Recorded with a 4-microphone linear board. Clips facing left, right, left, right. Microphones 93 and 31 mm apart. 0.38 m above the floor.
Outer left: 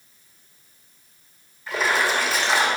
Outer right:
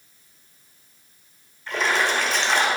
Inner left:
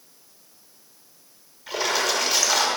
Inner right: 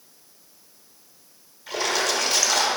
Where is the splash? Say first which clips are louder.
Even, even; 5° left (ahead or behind), 1.1 m.